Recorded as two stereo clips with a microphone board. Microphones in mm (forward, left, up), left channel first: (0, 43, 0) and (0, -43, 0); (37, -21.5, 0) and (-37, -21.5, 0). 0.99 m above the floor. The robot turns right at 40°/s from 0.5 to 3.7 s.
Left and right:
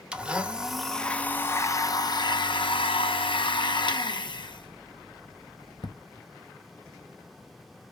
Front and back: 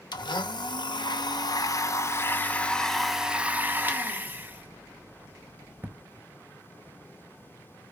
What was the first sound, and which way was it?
A blender, 10° right.